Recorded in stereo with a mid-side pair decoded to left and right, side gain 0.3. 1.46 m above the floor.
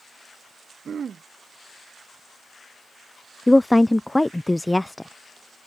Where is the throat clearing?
60° right.